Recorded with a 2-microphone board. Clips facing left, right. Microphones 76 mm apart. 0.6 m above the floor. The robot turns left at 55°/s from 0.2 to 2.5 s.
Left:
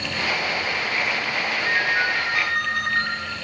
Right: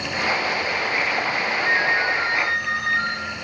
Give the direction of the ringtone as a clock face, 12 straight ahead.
7 o'clock.